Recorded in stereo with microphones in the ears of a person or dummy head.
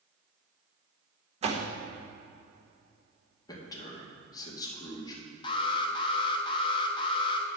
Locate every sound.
1.4 s a door slam: 30° right (ahead or behind), 0.9 m
3.5 s a man speaking: 20° left (ahead or behind), 2 m
5.4 s an alarm: 30° left (ahead or behind), 1.1 m